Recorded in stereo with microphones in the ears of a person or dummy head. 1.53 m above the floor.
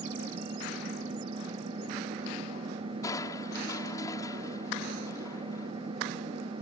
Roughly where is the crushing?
Centre.